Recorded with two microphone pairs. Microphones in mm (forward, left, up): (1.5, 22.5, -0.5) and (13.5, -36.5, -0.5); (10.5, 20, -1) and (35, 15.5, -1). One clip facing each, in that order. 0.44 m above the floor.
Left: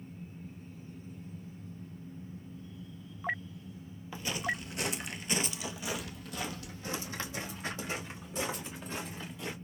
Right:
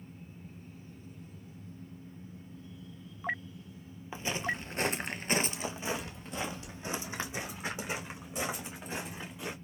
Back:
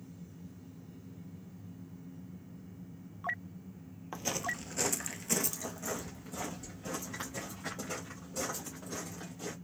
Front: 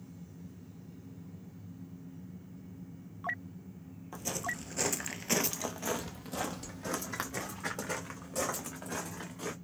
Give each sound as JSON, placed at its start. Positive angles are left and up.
{"t": 4.1, "sound": "footsteps", "azimuth_deg": -140, "distance_m": 0.6}